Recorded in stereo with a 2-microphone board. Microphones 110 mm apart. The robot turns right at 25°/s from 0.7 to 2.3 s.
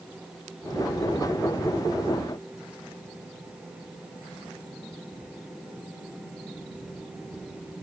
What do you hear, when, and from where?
Only background noise.